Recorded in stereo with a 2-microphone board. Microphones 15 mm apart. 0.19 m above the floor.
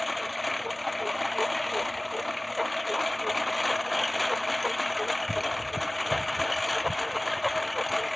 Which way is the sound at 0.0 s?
Centre (ahead or behind).